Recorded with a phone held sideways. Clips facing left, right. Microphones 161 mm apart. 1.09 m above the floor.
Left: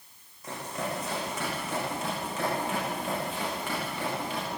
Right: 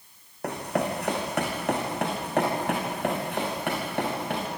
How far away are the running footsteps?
About 5 m.